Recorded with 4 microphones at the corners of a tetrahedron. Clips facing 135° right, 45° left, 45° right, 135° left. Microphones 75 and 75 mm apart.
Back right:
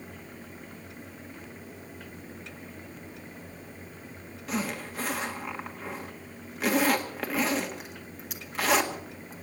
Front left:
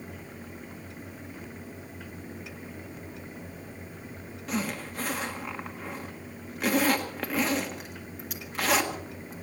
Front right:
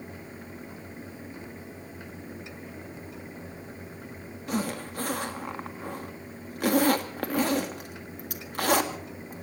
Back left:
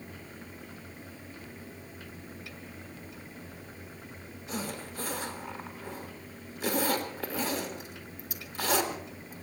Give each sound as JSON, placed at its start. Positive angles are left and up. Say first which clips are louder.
{"t": 4.5, "sound": "a zipper", "louder": "even, front right 7 dB", "azimuth_deg": -45, "distance_m": 1.7}